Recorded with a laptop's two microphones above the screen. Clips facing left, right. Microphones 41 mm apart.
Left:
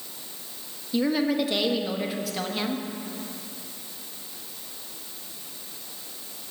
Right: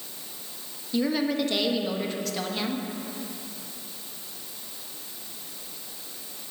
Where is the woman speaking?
10° left (ahead or behind), 1.0 m.